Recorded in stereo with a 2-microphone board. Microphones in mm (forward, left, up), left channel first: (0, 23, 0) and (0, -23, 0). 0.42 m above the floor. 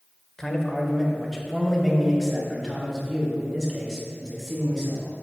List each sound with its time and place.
0.4 s a man speaking: 15° left (ahead or behind), 1.4 m; by 5.1 s 5° right (ahead or behind), 4 m